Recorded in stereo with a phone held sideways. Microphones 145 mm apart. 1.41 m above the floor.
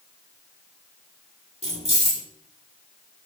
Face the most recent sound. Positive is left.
turn(degrees=-45)  # may be behind; listen again after turning